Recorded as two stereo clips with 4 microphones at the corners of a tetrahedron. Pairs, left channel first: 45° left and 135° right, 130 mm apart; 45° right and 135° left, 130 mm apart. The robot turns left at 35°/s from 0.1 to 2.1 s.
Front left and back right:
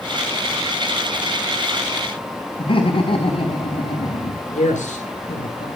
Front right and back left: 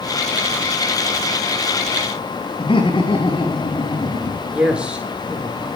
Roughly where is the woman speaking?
Ahead left.